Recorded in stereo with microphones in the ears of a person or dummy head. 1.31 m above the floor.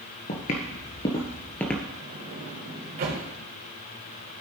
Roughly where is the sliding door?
Right.